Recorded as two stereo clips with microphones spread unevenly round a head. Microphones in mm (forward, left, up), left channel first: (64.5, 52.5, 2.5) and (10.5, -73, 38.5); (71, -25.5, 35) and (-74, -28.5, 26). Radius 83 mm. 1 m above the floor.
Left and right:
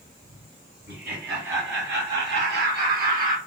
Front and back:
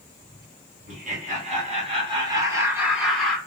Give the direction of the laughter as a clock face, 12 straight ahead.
5 o'clock.